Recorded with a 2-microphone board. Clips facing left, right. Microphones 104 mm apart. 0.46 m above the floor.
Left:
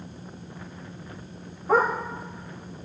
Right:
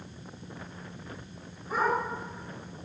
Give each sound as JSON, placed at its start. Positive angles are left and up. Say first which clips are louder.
{"t": 1.7, "sound": "a dog barking", "louder": "left 7 dB", "side_deg": 75, "distance_m": 9.5}